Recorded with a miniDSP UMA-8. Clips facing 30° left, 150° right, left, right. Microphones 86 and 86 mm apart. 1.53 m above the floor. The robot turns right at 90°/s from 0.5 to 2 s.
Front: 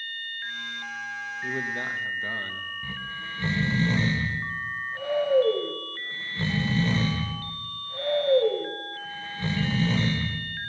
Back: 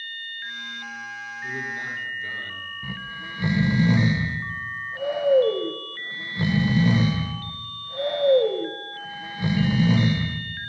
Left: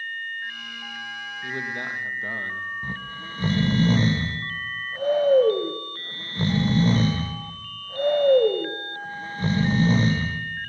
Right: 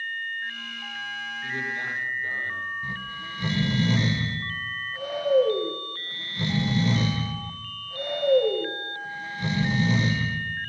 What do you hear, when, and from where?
1.4 s a man speaking: 25° left, 1.6 m; by 2.7 s 75° left, 1.6 m
2.8 s snoring: 135° left, 0.8 m